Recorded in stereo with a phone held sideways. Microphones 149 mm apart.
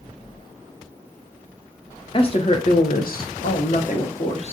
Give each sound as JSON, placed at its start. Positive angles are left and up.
{"t": 2.1, "sound": "a woman speaking", "side_deg": 35, "distance_m": 0.7}